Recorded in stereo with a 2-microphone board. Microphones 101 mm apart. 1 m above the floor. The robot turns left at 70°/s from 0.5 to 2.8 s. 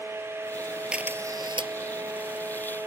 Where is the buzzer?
No buzzer in this recording.